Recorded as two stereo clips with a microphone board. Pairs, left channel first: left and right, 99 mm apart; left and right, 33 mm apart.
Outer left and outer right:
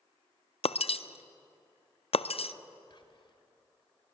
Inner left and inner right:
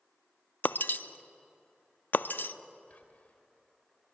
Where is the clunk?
No clunk in this recording.